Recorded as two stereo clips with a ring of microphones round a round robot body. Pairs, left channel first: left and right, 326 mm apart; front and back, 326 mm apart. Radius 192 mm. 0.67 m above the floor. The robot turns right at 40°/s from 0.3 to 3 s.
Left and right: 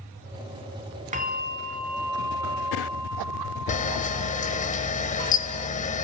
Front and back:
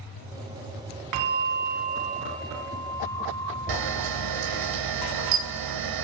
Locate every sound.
1.1 s a bell: 155° right, 2.5 m; by 4.7 s 80° right, 2.5 m
3.7 s a camera shutter: 155° left, 2.5 m